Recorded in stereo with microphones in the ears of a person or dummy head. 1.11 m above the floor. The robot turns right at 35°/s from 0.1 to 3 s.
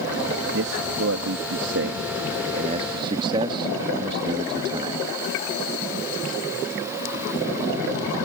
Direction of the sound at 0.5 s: 115° right.